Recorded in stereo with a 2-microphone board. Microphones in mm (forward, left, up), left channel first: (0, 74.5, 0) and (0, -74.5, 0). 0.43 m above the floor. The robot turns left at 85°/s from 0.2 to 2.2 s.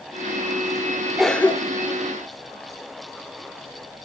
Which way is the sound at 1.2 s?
Centre (ahead or behind).